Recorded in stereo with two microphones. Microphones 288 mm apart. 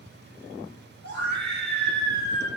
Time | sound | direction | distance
1.0 | a scream | 75° right (ahead or behind) | 5 m